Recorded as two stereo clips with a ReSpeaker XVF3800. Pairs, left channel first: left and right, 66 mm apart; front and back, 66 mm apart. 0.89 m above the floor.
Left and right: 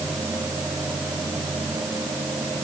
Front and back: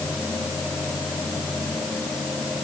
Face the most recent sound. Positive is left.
No sound to turn to.